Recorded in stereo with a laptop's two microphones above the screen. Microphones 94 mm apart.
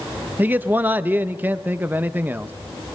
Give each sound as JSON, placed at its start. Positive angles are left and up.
{"t": 0.4, "sound": "a man speaking", "side_deg": -20, "distance_m": 0.5}